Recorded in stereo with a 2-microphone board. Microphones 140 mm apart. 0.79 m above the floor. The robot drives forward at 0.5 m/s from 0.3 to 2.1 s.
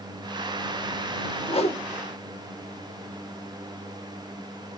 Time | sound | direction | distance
1.5 | a whoosh | 45° left (ahead or behind) | 0.6 m